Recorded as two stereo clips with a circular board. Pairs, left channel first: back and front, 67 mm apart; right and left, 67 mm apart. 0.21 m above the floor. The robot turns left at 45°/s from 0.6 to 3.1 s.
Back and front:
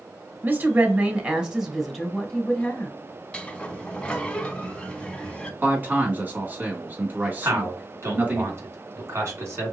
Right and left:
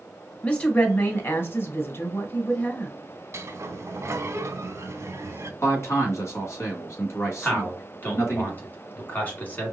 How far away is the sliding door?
About 0.7 m.